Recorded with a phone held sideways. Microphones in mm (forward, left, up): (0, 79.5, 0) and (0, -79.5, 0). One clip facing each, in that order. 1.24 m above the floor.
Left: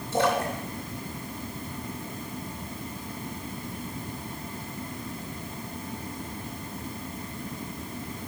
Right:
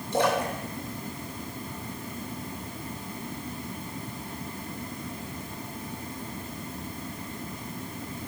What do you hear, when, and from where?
0.1 s a splash: 15° right (ahead or behind), 2 m